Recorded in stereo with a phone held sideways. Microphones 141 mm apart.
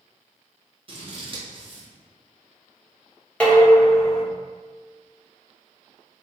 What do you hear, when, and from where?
0.9 s scissors: 35° right (ahead or behind), 0.9 m
3.4 s dishes clattering: 10° left (ahead or behind), 0.8 m